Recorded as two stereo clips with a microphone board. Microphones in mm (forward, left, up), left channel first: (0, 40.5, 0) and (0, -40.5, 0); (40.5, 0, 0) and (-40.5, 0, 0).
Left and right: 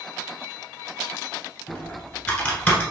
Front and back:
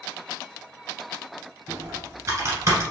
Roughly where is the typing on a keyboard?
Behind left.